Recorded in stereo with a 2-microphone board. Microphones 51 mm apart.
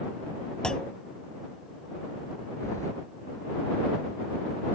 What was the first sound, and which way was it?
A clunk, 15° left (ahead or behind).